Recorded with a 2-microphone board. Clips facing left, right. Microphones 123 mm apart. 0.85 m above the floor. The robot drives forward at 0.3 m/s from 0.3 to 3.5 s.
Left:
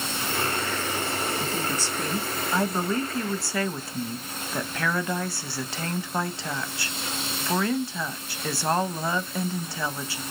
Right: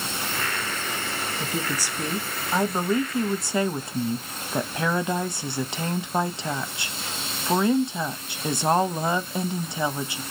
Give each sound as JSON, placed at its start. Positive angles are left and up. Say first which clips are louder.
{"t": 1.4, "sound": "a woman speaking", "louder": "even", "side_deg": -10, "distance_m": 1.1}